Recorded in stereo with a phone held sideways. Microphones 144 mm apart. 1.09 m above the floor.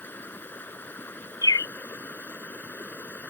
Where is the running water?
15° left (ahead or behind).